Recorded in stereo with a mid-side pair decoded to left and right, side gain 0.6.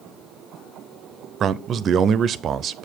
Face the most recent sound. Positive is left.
turn(degrees=-45)